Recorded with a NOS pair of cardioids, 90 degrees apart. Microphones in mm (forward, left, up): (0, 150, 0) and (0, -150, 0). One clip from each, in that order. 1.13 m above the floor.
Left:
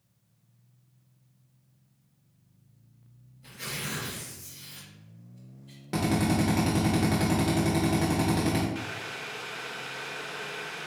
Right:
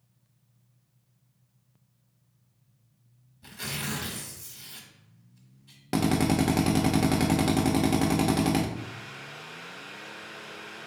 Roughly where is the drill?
Ahead right.